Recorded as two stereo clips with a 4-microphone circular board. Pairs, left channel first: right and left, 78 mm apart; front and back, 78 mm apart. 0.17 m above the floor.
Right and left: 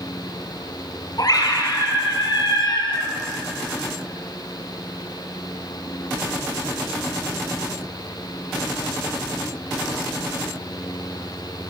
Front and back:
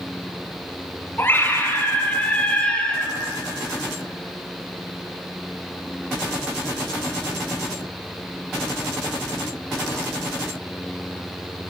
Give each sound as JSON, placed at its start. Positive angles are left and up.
{"t": 1.2, "sound": "a scream", "azimuth_deg": -60, "distance_m": 5.5}